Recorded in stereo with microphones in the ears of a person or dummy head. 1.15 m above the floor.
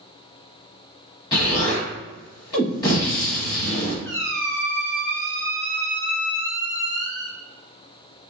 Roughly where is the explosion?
Left.